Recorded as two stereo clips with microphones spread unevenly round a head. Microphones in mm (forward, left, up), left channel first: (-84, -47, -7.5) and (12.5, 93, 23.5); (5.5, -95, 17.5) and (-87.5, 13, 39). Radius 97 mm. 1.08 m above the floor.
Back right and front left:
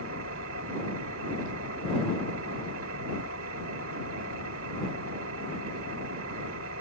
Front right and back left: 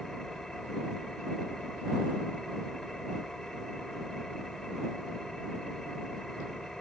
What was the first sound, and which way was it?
An engine running, 40° left.